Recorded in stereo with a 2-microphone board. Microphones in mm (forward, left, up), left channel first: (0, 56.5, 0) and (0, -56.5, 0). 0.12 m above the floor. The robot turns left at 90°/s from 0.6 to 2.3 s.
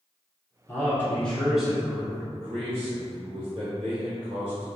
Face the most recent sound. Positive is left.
turn(degrees=-45)  # may be behind; listen again after turning